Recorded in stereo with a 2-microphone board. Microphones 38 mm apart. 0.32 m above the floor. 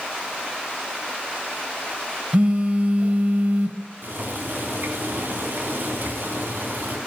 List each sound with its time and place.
2.3 s a phone buzzing: 35° right (ahead or behind), 1.0 m
4.0 s boiling: 65° right (ahead or behind), 3 m